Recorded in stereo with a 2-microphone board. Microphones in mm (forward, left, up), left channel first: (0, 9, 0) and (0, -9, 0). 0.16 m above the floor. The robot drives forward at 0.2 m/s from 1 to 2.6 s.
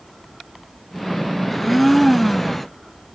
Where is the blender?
10° left (ahead or behind), 0.7 m.